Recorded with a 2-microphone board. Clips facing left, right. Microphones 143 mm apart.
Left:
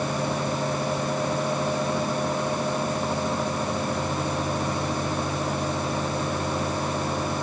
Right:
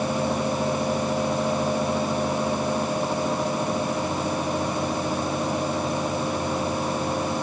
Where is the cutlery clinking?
I don't hear cutlery clinking.